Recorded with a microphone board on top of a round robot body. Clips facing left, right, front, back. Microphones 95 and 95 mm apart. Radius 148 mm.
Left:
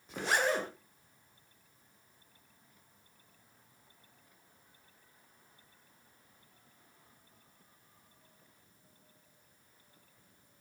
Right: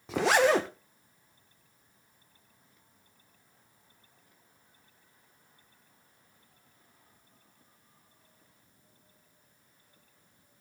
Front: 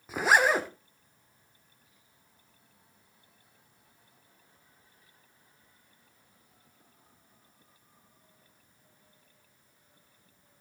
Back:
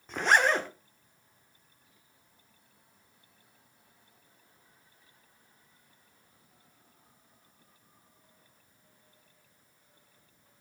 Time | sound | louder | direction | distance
0.1 | a zipper | right 8 dB, front 1 dB | 80° right | 0.9 m